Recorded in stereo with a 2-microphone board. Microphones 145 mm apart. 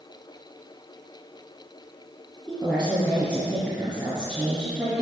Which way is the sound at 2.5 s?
5° right (ahead or behind).